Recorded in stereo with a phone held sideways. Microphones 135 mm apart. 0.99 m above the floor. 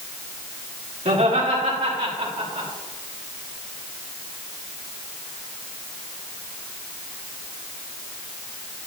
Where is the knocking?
No knocking in this recording.